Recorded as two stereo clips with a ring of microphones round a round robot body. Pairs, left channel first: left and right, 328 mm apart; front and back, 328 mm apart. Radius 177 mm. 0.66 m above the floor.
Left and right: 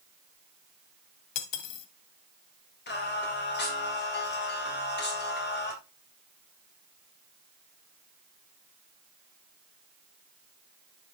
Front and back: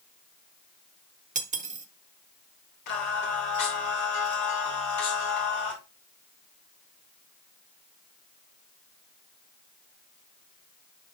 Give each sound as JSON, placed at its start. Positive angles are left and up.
{"t": 1.4, "sound": "cutlery clinking", "azimuth_deg": 110, "distance_m": 1.0}
{"t": 2.9, "sound": "singing", "azimuth_deg": 30, "distance_m": 3.0}